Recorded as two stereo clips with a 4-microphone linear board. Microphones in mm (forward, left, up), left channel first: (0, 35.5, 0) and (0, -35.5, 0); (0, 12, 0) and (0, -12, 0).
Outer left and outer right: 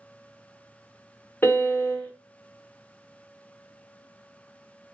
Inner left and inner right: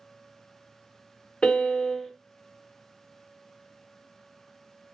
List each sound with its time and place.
1.4 s a piano: 30° left (ahead or behind), 0.6 m